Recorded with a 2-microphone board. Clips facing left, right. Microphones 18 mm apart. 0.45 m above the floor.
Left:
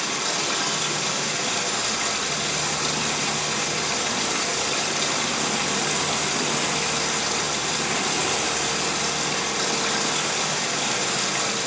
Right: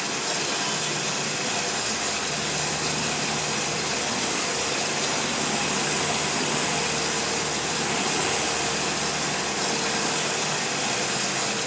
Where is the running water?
45° left (ahead or behind), 4.5 m.